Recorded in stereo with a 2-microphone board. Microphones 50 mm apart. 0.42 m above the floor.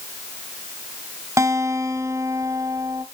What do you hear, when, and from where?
1.4 s a guitar: 75° right (ahead or behind), 1.0 m